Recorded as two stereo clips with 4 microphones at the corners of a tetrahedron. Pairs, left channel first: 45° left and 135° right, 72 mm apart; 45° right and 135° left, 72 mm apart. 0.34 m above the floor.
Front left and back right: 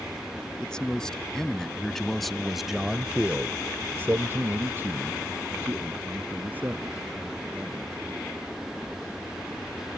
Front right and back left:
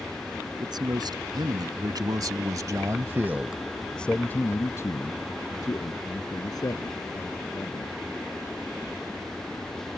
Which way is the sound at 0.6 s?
125° left.